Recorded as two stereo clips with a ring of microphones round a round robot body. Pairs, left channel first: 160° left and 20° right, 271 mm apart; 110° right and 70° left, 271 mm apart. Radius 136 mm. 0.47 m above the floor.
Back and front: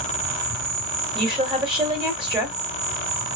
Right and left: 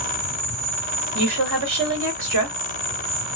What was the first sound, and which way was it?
An insect, 5° left.